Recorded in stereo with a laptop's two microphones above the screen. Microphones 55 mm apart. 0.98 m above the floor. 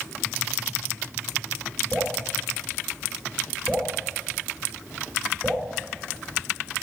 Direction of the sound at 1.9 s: 30° right (ahead or behind).